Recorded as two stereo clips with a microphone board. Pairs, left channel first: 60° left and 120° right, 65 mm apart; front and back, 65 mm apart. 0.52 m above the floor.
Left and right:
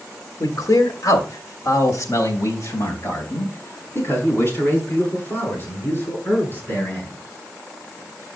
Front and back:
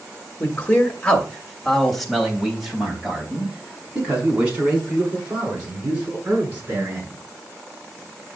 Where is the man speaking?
55° left, 2.5 m; by 7.2 s 115° left, 8.5 m.